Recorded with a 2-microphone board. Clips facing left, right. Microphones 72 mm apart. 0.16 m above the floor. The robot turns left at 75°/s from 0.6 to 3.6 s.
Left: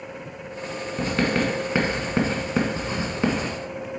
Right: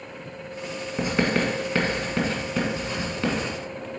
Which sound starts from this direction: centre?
Writing, at 1.0 s.